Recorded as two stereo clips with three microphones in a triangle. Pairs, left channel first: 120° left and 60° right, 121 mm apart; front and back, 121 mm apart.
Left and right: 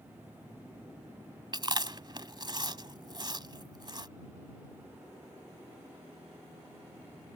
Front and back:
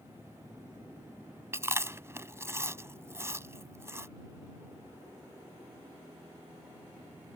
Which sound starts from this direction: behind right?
Chewing, at 1.5 s.